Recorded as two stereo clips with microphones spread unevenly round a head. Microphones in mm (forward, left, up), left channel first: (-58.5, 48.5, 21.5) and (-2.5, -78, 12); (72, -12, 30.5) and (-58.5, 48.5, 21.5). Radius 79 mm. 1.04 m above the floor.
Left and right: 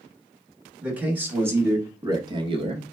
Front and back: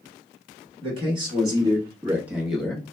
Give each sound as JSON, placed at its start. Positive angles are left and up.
{"t": 0.8, "sound": "a man speaking", "azimuth_deg": -145, "distance_m": 1.6}